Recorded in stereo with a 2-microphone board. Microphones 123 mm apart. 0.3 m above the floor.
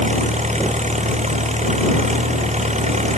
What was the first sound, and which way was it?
An engine running, 70° right (ahead or behind).